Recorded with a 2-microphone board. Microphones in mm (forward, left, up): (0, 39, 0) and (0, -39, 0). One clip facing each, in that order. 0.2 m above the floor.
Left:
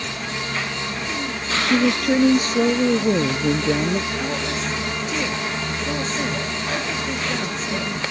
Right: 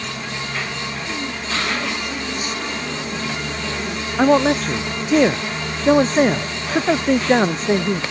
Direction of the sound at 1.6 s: 65° left (ahead or behind).